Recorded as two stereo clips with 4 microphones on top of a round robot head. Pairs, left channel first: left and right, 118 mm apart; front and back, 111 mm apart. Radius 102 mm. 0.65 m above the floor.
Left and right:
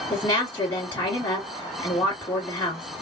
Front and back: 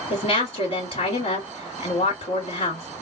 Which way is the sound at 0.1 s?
15° left.